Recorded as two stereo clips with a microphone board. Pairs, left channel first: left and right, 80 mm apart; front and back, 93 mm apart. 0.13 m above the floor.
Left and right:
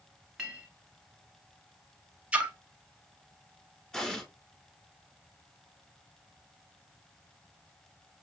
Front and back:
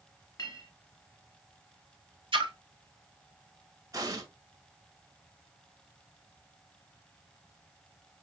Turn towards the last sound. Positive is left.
turn(degrees=170)